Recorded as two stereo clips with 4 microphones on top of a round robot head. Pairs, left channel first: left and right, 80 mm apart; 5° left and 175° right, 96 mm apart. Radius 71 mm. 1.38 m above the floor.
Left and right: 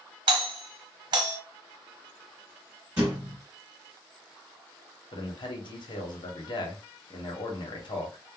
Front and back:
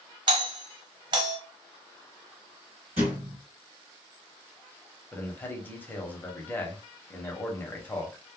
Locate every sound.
0.3 s a doorbell: 130° right, 0.8 m
3.0 s a thud: 155° right, 1.5 m
5.1 s a man speaking: 75° left, 1.0 m